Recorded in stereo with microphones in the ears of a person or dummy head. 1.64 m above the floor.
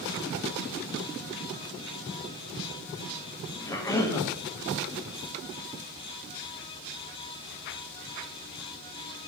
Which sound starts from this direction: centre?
A cough, at 3.7 s.